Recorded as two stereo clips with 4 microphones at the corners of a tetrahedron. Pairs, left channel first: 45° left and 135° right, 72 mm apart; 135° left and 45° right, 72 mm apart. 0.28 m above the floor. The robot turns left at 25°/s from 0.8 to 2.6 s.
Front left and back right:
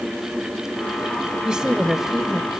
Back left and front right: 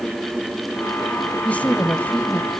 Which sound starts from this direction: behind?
A woman speaking, at 1.4 s.